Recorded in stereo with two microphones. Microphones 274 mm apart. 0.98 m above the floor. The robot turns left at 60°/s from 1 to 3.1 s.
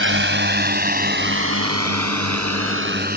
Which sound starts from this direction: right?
A drone, at 0.0 s.